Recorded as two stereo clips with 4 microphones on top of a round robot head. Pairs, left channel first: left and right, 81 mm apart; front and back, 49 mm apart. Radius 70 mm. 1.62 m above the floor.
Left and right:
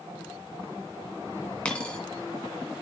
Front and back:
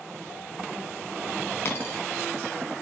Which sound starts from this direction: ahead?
A dropped coin, at 1.6 s.